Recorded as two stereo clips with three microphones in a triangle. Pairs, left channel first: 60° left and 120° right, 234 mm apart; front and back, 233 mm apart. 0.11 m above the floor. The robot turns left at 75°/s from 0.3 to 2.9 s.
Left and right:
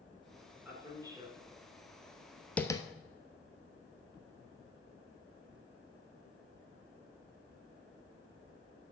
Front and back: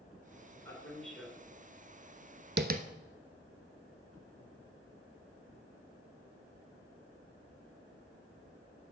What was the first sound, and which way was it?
A man speaking, 55° right.